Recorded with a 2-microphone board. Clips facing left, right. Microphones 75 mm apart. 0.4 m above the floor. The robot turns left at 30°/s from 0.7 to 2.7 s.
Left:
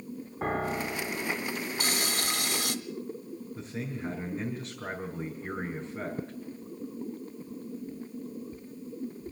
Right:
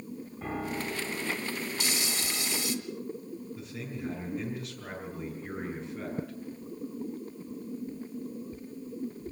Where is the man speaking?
35° left (ahead or behind), 5.5 m.